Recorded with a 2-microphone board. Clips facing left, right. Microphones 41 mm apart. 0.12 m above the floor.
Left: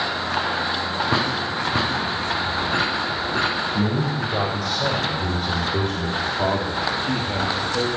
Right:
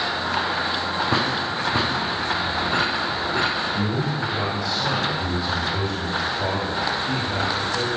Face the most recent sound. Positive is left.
turn(degrees=25)  # may be behind; listen again after turning